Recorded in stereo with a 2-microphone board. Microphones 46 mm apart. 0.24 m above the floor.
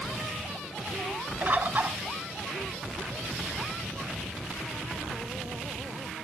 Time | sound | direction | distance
1.4 | a bird | 40° right (ahead or behind) | 0.5 m